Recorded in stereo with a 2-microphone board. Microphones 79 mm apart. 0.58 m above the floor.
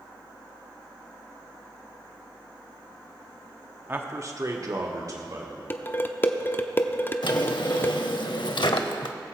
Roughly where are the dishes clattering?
Left.